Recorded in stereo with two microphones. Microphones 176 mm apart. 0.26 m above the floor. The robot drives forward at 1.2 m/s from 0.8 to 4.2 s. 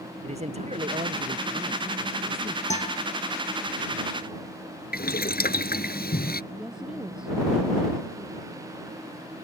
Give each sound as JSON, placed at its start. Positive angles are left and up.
{"t": 0.2, "sound": "a man speaking", "side_deg": -40}
{"t": 2.7, "sound": "a guitar", "side_deg": 40}
{"t": 4.9, "sound": "boiling", "side_deg": 60}
{"t": 6.5, "sound": "a woman speaking", "side_deg": -5}